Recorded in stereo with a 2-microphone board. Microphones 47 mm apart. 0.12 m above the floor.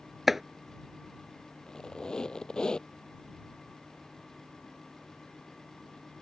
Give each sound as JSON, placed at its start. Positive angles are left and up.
{"t": 0.3, "sound": "chopping", "side_deg": -5}
{"t": 1.7, "sound": "a squeak", "side_deg": 15}